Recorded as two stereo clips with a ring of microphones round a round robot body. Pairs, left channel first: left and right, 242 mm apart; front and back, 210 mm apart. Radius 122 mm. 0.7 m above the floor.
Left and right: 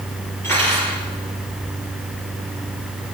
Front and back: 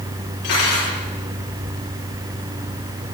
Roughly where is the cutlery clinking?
Ahead.